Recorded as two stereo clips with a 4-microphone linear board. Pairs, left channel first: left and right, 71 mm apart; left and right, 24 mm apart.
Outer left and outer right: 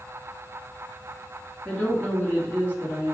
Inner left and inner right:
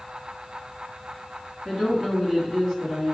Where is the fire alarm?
No fire alarm in this recording.